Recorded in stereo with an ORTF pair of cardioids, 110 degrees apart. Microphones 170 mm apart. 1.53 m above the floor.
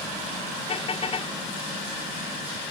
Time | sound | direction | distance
0.7 | a car horn | 35° left | ?